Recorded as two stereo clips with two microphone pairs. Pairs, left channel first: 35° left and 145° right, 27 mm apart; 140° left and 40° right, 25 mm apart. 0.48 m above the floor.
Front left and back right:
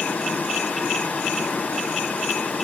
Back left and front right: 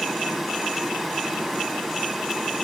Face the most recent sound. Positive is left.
turn(degrees=50)